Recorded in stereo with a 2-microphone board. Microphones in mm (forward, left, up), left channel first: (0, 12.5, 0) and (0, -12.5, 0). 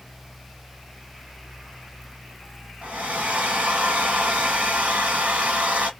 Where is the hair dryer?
65° right (ahead or behind), 1.2 m.